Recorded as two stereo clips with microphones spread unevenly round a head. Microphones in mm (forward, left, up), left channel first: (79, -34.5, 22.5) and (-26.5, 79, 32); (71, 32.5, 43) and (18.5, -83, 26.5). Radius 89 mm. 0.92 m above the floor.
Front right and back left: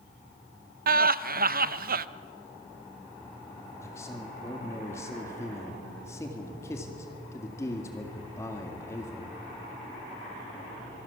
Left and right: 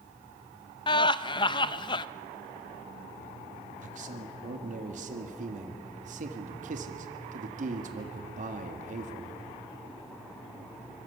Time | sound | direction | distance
0.9 | laughter | 120° left | 0.6 m
3.8 | a man speaking | 120° right | 1.9 m